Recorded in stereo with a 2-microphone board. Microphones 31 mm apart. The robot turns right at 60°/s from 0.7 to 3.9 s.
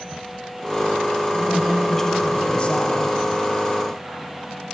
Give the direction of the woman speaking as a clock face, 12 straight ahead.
1 o'clock.